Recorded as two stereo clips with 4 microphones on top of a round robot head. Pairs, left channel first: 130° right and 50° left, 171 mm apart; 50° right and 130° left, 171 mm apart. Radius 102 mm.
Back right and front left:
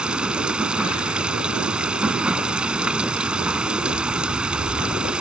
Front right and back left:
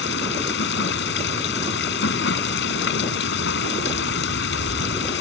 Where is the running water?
35° right.